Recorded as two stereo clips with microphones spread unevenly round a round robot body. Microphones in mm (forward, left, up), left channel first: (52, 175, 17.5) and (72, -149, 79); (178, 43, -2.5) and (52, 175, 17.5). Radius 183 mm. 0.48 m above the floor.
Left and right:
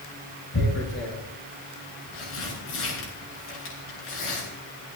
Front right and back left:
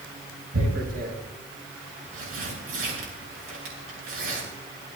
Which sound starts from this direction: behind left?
Tearing paper, at 0.5 s.